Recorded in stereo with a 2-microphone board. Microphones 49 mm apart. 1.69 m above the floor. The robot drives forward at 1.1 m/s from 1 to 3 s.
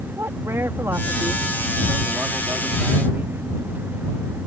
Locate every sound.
0.2 s a man speaking: 75° right (ahead or behind); by 3.4 s 50° right (ahead or behind)